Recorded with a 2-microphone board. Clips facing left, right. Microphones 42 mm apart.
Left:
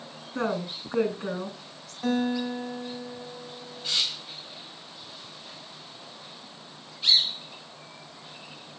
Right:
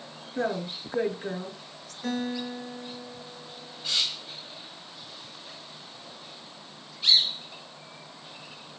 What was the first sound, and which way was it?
A woman speaking, 80° left.